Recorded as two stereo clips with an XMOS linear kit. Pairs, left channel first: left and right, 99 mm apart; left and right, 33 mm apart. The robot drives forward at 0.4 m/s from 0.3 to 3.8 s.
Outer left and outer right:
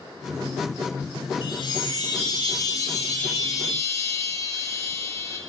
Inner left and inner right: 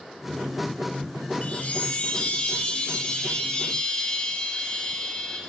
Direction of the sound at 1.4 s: 50° left (ahead or behind).